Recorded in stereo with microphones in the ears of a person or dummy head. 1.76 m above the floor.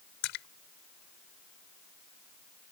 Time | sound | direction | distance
0.2 | a splash | 65° left (ahead or behind) | ?